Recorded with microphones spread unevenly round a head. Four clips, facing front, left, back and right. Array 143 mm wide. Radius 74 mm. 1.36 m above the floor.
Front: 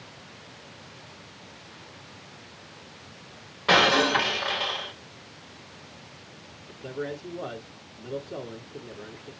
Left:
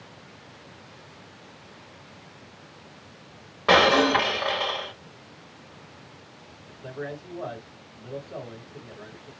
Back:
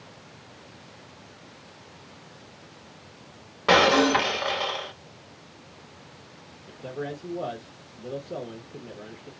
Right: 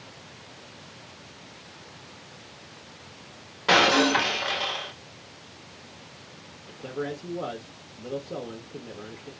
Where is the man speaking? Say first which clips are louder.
Right 3 dB, even; 125° right, 1.6 m.